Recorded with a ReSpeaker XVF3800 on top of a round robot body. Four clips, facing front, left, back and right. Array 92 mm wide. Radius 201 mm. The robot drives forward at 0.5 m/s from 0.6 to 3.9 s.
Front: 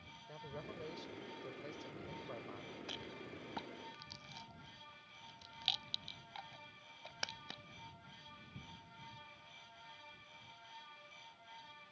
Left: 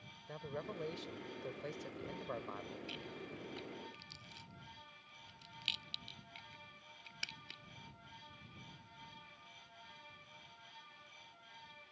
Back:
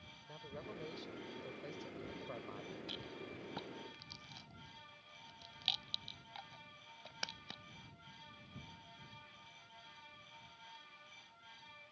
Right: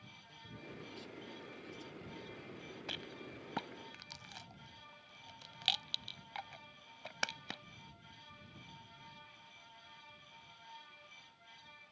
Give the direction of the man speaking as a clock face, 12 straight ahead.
9 o'clock.